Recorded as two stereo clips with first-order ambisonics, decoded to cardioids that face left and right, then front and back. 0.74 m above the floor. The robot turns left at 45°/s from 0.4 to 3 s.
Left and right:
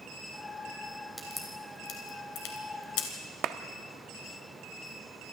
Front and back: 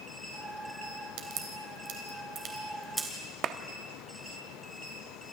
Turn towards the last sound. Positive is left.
turn(degrees=-130)